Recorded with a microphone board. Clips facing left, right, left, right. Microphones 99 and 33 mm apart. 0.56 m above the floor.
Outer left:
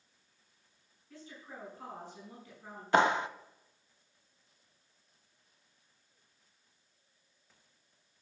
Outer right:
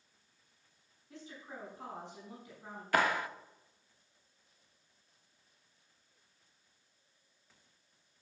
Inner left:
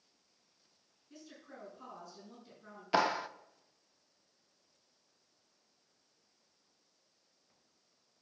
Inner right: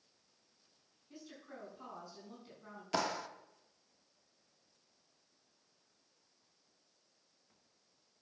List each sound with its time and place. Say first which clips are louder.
1.1 s a woman speaking: outer right 1 dB, inner right 1 dB; 20° right (ahead or behind), 6 m
2.9 s a clap: outer left 4 dB, inner left 6 dB; 25° left (ahead or behind), 0.5 m